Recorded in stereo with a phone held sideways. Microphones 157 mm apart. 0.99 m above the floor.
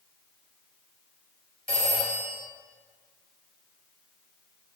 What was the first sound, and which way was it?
A phone ringing, 65° right (ahead or behind).